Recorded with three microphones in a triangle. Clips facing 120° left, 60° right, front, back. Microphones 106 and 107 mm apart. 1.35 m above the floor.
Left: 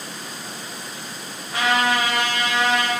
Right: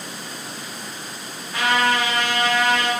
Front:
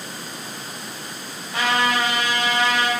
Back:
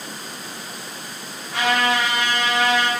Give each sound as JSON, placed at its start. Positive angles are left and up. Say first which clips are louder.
{"t": 1.5, "sound": "a trumpet", "louder": "even, back 1 dB", "azimuth_deg": 150, "distance_m": 1.9}